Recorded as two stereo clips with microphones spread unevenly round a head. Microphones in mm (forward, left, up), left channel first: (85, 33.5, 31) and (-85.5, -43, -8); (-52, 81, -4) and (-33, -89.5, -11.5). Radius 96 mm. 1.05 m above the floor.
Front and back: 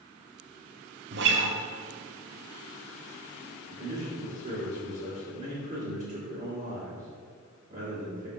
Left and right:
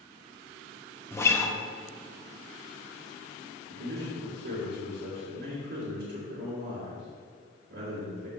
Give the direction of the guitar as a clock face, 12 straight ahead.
6 o'clock.